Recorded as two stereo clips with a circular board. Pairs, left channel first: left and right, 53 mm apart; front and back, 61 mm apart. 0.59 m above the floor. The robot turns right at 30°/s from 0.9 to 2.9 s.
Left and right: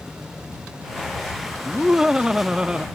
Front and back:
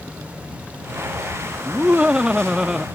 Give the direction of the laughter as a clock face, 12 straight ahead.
5 o'clock.